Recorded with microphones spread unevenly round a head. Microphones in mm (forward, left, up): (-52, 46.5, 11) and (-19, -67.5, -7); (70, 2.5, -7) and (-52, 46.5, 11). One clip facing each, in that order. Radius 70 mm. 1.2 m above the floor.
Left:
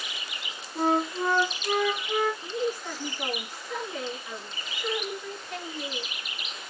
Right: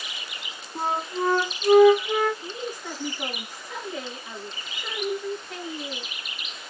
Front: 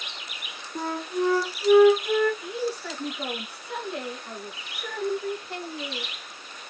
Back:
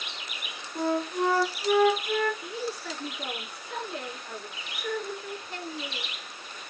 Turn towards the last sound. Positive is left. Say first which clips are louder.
# left 4 dB, front 4 dB
turn(degrees=5)